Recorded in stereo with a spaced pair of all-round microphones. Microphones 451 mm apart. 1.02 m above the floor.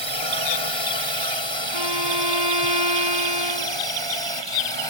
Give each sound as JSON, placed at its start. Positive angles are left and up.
{"t": 0.0, "sound": "a drone", "side_deg": -80}
{"t": 1.7, "sound": "a violin", "side_deg": -65}